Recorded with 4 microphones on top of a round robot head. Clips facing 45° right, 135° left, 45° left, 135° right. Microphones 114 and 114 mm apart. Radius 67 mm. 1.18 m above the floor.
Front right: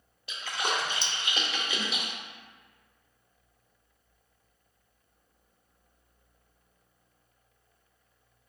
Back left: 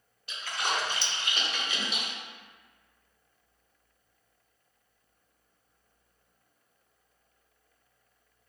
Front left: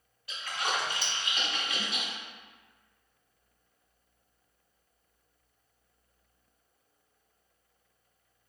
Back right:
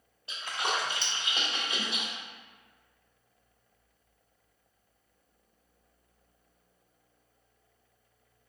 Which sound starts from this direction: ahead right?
A splash, at 0.3 s.